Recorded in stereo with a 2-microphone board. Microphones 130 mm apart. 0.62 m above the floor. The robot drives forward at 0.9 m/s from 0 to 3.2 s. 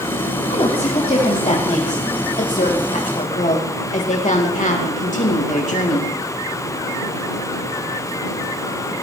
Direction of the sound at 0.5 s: 55° left (ahead or behind).